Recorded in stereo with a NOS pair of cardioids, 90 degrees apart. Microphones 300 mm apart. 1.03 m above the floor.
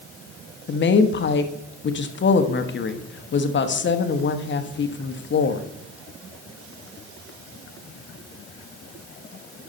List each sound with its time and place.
0.7 s a woman speaking: 40° left, 1.1 m